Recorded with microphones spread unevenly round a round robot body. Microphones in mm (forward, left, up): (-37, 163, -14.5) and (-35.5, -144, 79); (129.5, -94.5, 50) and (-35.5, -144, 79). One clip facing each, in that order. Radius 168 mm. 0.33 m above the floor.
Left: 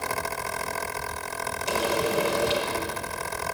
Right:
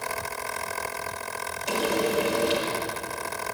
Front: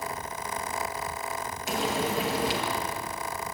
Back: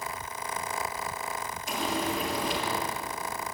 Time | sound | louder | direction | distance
1.7 | frying | right 1 dB, front 2 dB | 5° left | 4.5 m